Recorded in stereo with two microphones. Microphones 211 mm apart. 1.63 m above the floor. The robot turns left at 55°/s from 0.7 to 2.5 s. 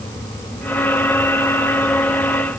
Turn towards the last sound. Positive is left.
No sound to turn to.